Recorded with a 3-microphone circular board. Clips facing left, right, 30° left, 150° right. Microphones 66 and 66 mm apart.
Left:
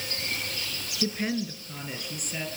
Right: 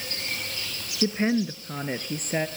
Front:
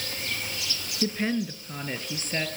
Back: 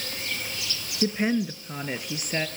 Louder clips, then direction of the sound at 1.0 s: Right 6 dB, back 3 dB; 100° right.